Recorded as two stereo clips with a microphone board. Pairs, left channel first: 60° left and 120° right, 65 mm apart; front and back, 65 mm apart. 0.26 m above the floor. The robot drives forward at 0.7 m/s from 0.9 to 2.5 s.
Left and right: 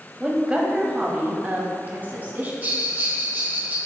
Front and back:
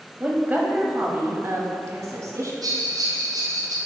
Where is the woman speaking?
170° right, 1.0 m; by 2.5 s 175° right, 1.8 m.